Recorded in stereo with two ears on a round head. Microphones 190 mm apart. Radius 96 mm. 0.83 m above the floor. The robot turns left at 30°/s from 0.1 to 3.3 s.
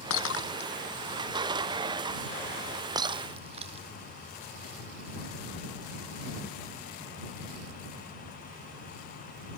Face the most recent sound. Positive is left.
turn(degrees=-30)  # may be behind; listen again after turning